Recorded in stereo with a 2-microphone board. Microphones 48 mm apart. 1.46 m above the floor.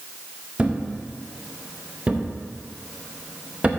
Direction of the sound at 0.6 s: 25° right (ahead or behind).